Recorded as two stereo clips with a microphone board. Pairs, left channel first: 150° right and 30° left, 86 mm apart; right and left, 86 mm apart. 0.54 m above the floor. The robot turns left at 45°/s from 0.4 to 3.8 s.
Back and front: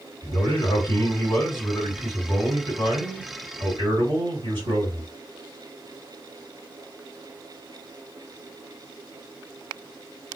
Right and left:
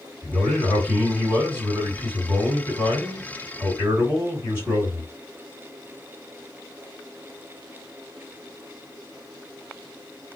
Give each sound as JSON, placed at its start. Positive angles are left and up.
{"t": 0.2, "sound": "a man speaking", "azimuth_deg": -175, "distance_m": 1.8}